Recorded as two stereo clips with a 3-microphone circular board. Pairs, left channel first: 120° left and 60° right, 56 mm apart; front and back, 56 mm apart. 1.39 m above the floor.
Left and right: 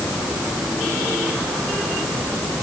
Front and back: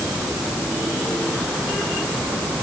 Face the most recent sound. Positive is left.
No sound to turn to.